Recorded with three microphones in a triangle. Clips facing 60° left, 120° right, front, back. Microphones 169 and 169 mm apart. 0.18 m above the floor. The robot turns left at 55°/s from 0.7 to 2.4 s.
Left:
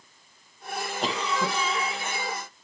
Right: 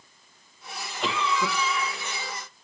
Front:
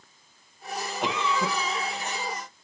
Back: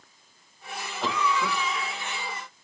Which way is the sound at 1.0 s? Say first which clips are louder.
Right 2 dB, back 1 dB; 65° left.